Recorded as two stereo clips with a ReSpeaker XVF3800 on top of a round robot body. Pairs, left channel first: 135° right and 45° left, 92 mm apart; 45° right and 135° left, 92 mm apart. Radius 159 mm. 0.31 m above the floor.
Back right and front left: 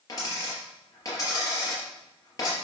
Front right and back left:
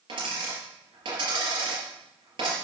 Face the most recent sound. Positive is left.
turn(degrees=175)